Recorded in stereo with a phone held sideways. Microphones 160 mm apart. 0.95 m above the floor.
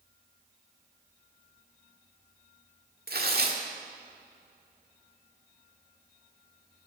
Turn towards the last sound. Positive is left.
turn(degrees=-70)  # may be behind; listen again after turning